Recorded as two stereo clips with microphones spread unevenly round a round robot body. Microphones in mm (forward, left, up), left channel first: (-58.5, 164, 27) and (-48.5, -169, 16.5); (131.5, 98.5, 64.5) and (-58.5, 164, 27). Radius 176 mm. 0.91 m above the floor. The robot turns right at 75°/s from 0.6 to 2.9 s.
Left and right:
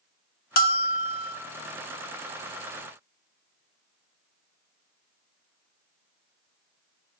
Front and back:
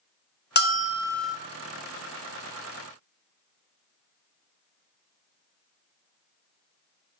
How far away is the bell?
About 0.6 m.